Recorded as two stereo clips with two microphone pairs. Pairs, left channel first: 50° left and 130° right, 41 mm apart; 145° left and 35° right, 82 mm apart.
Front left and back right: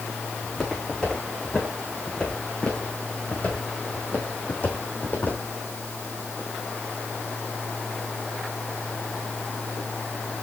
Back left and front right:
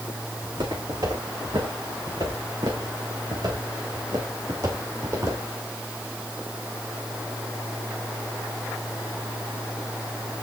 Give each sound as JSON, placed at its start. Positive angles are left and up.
{"t": 0.4, "sound": "footsteps", "azimuth_deg": -30, "distance_m": 4.0}